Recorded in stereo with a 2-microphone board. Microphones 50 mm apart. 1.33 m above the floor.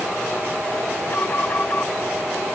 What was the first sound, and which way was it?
An alarm, 35° left (ahead or behind).